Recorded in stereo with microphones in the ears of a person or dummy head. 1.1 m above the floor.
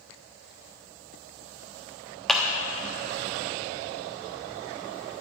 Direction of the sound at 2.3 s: Centre (ahead or behind).